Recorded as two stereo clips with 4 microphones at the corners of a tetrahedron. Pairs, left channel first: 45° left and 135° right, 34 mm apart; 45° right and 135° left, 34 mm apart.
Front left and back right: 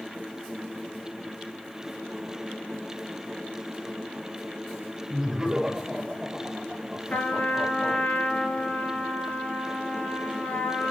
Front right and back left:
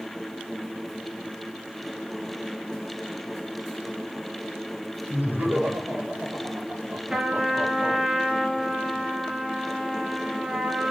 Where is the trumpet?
65° left, 3 m.